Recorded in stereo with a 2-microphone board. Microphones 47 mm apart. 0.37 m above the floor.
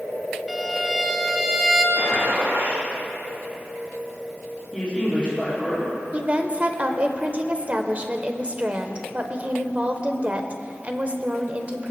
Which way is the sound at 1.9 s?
80° right.